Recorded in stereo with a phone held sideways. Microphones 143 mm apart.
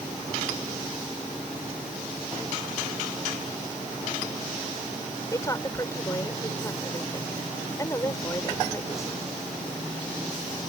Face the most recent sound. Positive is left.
turn(degrees=25)  # may be behind; listen again after turning